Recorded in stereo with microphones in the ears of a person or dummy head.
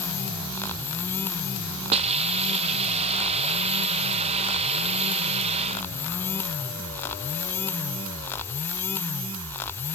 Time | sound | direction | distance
1.9 | a hiss | 35° right (ahead or behind) | 0.5 m